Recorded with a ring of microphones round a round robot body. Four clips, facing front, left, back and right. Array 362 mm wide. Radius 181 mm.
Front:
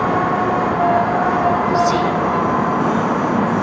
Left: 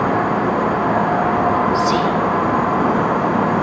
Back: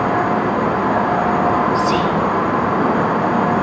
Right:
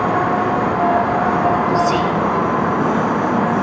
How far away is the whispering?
About 1.6 m.